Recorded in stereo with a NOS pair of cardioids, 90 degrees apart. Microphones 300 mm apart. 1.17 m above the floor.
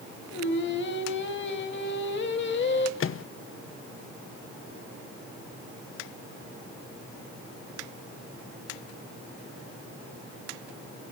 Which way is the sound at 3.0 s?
45° left.